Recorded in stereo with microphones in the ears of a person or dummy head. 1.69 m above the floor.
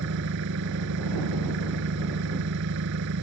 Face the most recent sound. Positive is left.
turn(degrees=-65)  # may be behind; listen again after turning